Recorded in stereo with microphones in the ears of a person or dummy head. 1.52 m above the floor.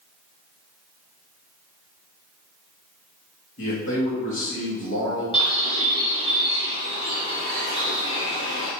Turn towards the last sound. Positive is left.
turn(degrees=30)  # may be behind; listen again after turning